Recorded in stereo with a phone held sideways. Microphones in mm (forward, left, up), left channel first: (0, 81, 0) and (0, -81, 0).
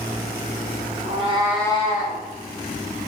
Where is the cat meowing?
50° right (ahead or behind), 0.9 m; by 2.2 s 65° left (ahead or behind), 0.9 m.